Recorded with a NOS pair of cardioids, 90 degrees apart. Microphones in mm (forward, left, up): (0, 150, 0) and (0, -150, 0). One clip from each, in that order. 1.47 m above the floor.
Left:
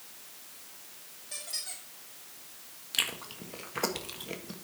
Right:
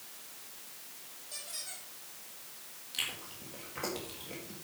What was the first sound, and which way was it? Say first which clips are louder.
A squeak: left 5 dB; 45° left.